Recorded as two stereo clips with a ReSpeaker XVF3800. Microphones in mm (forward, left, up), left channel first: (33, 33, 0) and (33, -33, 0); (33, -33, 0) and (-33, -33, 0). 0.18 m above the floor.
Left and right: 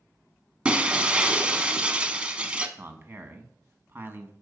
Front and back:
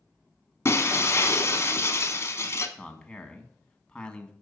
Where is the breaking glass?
20° right, 0.8 m.